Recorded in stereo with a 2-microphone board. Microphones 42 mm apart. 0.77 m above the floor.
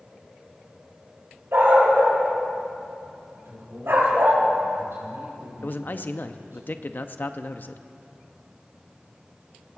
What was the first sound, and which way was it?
A dog barking, 85° right.